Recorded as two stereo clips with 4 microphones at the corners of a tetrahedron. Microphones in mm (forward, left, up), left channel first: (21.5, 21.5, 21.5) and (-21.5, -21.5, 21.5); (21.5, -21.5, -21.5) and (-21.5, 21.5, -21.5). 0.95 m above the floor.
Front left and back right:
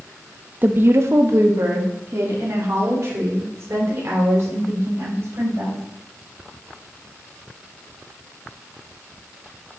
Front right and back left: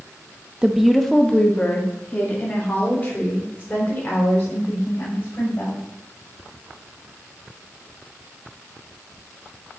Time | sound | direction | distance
0.6 | a woman speaking | 160° right | 0.7 m